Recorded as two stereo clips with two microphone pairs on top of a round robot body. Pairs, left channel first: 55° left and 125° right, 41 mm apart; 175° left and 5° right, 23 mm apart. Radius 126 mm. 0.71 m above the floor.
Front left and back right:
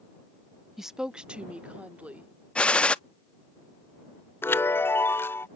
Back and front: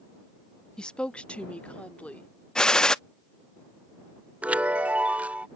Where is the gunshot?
120° left.